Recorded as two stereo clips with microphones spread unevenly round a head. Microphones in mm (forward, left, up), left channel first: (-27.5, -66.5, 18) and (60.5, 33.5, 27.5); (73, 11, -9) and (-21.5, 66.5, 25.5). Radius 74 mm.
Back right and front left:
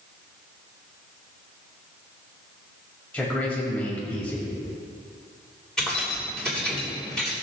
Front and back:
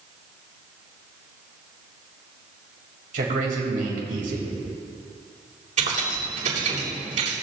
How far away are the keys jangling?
About 4 m.